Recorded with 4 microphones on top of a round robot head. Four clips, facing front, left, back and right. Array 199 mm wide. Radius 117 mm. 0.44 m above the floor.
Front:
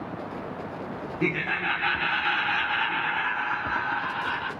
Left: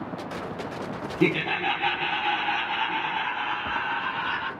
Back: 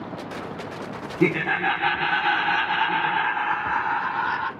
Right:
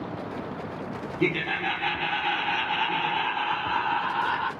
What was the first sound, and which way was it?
Laughter, 150° left.